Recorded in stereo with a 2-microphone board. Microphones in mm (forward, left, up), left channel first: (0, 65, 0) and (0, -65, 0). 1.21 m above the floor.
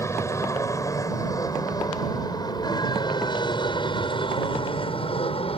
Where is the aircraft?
20° left (ahead or behind); by 5.6 s 45° left (ahead or behind).